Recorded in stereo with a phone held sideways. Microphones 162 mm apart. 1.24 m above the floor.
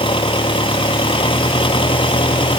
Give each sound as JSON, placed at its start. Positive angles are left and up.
{"t": 0.0, "sound": "an engine running", "side_deg": 30}